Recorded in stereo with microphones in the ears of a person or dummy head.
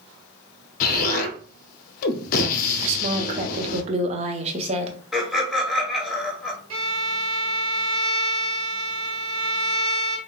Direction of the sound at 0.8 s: 50° left (ahead or behind).